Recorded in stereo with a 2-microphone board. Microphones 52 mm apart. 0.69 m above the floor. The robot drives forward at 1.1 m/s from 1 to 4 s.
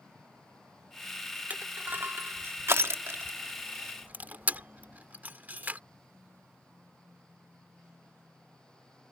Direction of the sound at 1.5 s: 35° right (ahead or behind).